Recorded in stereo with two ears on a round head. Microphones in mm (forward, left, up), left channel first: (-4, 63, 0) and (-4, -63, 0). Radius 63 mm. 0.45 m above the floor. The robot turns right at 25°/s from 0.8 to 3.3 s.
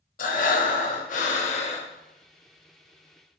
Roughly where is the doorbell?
No doorbell in this recording.